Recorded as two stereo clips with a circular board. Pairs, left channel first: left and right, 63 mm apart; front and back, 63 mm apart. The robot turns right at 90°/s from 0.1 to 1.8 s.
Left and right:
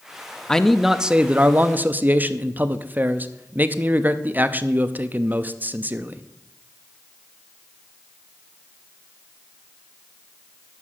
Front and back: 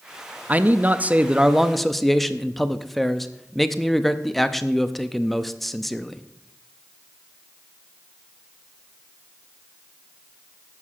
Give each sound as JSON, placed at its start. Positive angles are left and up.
{"t": 0.5, "sound": "a man speaking", "azimuth_deg": 155, "distance_m": 0.5}